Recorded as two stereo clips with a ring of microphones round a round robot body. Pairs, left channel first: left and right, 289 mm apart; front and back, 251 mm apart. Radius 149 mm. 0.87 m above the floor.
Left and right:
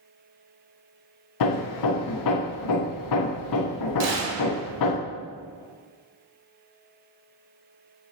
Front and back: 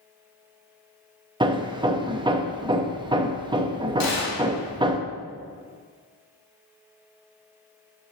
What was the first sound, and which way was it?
Hammering, 105° left.